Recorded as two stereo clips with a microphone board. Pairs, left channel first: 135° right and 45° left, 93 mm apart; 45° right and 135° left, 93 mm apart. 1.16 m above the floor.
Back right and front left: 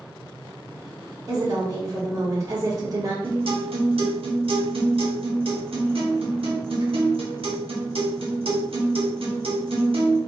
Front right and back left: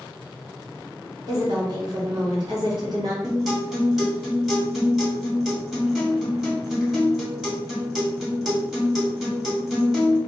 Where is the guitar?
50° left, 1.8 m.